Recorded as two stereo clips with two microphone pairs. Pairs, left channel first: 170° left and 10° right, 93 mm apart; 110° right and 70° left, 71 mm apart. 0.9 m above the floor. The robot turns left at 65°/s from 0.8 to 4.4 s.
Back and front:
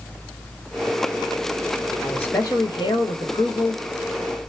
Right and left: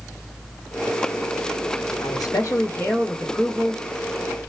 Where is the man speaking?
110° right, 1.3 m; by 3.8 s 135° left, 1.3 m.